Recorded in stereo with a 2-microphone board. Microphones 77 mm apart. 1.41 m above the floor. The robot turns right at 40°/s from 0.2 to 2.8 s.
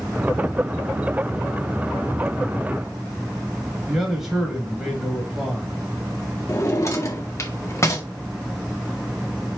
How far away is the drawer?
About 1.7 m.